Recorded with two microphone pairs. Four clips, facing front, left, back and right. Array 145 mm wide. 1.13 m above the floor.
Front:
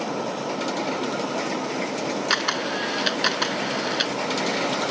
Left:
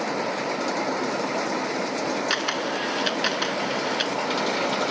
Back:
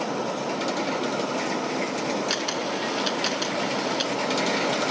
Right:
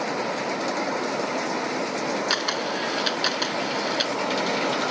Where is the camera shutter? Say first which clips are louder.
Even, front 2 dB; 5° left.